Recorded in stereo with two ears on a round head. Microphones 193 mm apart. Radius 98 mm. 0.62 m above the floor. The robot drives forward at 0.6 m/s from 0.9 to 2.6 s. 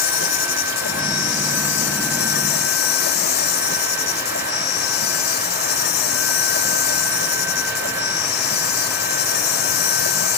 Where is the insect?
65° left (ahead or behind); by 10.4 s 55° left (ahead or behind).